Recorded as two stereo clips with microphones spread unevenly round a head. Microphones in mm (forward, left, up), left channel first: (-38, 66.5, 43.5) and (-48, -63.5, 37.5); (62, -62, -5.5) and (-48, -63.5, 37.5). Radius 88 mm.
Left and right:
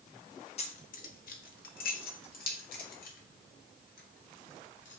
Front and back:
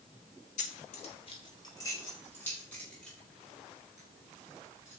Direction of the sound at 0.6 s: 45° left.